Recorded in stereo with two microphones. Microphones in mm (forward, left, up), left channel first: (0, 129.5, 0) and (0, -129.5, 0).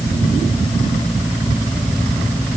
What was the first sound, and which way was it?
Only background noise.